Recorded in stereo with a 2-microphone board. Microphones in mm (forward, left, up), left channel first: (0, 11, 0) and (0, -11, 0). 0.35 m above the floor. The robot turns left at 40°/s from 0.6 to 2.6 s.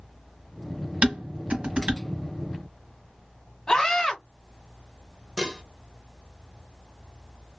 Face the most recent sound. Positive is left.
turn(degrees=-25)  # may be behind; listen again after turning